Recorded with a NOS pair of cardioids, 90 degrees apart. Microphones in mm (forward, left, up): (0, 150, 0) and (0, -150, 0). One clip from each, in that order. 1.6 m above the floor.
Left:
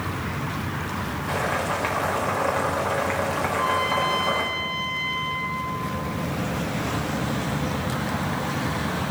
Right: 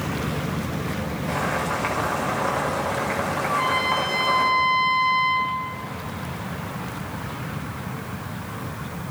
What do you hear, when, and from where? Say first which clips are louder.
1.3 s boiling: even; 5° left, 4 m
3.5 s a trumpet: right 3 dB; 50° right, 3 m